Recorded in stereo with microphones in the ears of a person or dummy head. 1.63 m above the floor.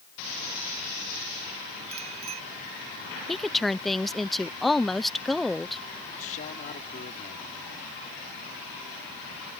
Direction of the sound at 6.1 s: 40° left (ahead or behind).